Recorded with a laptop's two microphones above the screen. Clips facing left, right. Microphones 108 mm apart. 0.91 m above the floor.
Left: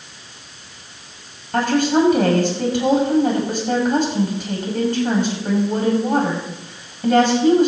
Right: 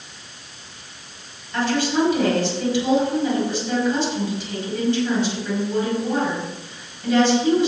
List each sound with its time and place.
1.5 s a woman speaking: 50° left (ahead or behind), 5.5 m